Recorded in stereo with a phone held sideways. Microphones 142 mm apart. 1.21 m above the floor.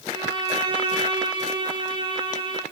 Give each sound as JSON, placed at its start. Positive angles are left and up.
{"t": 0.1, "sound": "a violin", "side_deg": -35, "distance_m": 1.8}